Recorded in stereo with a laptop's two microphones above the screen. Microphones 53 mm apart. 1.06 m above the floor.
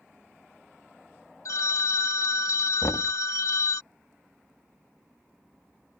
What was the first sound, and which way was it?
A phone ringing, 70° left (ahead or behind).